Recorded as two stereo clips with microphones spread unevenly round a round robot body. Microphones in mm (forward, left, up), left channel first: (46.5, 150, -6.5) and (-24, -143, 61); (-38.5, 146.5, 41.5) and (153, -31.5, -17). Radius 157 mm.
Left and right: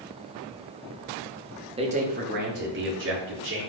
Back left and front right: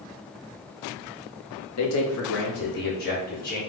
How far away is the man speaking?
About 1.2 m.